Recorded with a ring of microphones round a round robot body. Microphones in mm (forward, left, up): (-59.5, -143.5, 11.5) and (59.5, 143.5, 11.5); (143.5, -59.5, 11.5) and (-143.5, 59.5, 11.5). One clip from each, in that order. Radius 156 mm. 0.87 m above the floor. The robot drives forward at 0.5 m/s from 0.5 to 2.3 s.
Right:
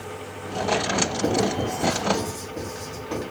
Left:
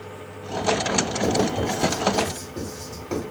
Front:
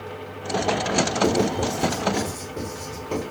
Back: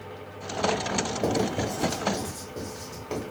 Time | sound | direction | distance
1.2 | writing | 125° left | 1.4 m